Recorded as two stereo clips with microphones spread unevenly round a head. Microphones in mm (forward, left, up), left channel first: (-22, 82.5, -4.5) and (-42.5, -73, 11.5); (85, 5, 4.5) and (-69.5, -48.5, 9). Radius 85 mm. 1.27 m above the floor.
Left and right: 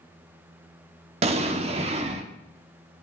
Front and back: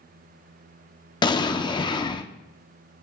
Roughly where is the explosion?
Ahead right.